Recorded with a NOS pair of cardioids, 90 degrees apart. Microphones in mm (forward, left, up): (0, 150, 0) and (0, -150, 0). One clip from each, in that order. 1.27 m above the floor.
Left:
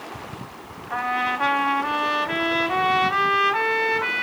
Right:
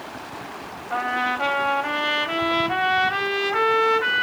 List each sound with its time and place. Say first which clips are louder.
0.9 s a trumpet: even; 15° right, 2.5 m